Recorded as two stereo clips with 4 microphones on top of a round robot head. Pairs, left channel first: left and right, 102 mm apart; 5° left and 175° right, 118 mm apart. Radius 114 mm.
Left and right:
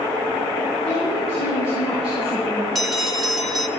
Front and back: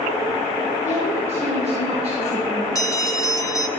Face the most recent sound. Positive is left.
turn(degrees=0)